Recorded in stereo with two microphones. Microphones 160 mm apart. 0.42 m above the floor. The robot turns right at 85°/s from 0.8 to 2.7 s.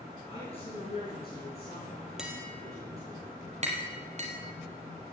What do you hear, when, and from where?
0.3 s a man speaking: 35° left, 7.5 m; by 3.2 s 160° right, 7.5 m
2.2 s tapping: 5° right (ahead or behind), 3 m; by 4.3 s 45° right (ahead or behind), 3 m